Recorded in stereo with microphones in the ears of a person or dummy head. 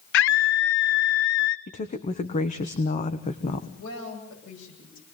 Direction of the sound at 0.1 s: 60° left (ahead or behind).